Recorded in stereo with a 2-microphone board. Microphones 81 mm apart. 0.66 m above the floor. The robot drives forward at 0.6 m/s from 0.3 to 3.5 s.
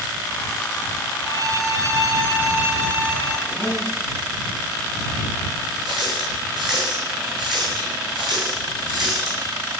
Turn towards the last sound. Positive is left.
turn(degrees=-70)  # may be behind; listen again after turning